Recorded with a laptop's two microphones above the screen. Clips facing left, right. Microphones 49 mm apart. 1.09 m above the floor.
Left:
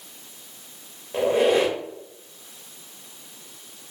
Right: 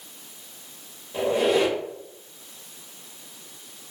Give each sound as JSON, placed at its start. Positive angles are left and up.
{"t": 1.1, "sound": "a squeak", "side_deg": 45, "distance_m": 1.0}